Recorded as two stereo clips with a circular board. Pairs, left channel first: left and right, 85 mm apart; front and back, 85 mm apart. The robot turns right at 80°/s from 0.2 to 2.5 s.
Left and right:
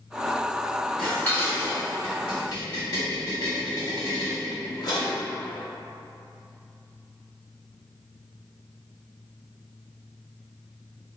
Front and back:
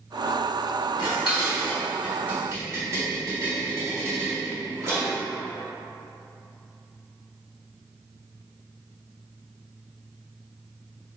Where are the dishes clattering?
5° left, 1.5 m; by 5.2 s 125° left, 1.5 m.